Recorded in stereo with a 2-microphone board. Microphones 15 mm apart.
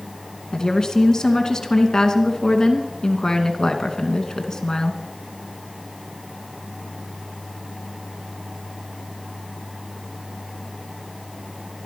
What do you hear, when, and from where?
0.5 s a woman speaking: 45° left (ahead or behind), 2.5 m